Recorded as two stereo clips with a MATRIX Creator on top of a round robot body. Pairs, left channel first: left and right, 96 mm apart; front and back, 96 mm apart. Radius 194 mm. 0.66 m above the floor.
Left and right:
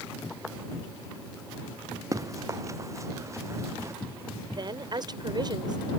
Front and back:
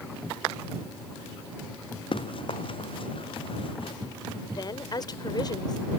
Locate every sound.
2.1 s running footsteps: 35° right; by 4.0 s 30° right
4.5 s a woman speaking: 45° right